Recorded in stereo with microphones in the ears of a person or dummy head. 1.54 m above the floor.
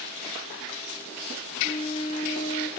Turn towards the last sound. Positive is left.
turn(degrees=30)  # may be behind; listen again after turning